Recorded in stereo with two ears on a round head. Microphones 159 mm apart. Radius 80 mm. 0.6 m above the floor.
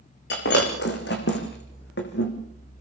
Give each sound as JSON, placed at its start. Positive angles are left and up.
{"t": 0.3, "sound": "breaking glass", "side_deg": 65, "distance_m": 6.5}